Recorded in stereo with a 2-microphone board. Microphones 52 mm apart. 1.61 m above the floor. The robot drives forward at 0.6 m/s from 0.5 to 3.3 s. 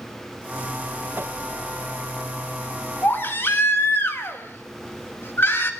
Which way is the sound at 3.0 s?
40° left (ahead or behind).